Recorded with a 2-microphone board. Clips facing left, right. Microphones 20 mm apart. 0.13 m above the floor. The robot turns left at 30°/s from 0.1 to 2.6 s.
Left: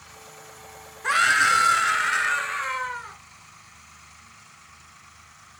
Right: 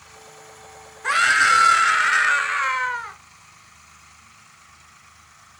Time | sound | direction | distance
1.0 | a scream | straight ahead | 1.9 m